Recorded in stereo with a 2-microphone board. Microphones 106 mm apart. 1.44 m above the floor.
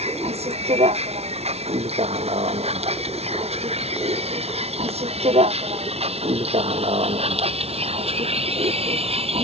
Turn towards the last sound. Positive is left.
turn(degrees=-70)  # may be behind; listen again after turning